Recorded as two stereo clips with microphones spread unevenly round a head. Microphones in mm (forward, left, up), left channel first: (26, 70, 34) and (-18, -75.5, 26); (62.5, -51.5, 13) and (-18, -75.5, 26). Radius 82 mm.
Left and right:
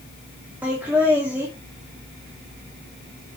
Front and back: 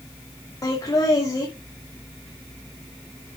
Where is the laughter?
30° right, 2.5 m.